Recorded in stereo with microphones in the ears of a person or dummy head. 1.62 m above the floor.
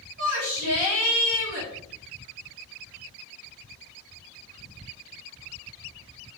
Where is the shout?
70° right (ahead or behind), 4 m; by 1.7 s 75° right (ahead or behind), 3 m.